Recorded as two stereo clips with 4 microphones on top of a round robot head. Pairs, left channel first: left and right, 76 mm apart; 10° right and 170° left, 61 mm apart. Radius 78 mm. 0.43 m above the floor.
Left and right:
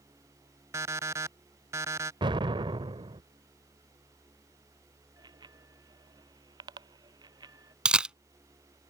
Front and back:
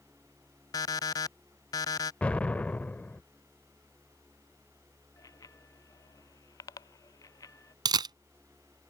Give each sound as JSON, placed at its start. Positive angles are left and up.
{"t": 0.7, "sound": "an alarm clock", "azimuth_deg": -35}
{"t": 2.2, "sound": "an explosion", "azimuth_deg": -80}
{"t": 5.2, "sound": "a bicycle bell", "azimuth_deg": -50}
{"t": 7.8, "sound": "a camera shutter", "azimuth_deg": -170}